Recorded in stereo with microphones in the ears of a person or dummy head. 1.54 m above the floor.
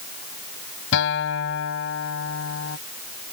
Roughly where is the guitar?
Left.